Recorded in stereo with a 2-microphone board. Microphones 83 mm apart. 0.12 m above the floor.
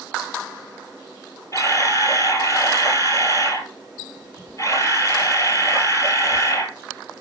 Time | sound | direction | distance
1.5 | a camera shutter | 40° left (ahead or behind) | 1.7 m